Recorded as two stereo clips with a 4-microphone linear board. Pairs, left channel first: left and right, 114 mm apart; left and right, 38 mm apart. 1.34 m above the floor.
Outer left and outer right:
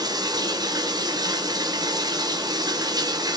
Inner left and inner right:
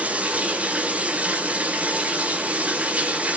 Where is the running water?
35° right (ahead or behind), 1.0 m.